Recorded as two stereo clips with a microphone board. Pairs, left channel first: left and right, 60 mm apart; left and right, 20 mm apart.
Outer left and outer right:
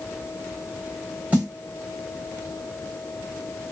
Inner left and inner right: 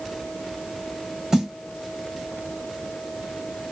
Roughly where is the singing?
No singing in this recording.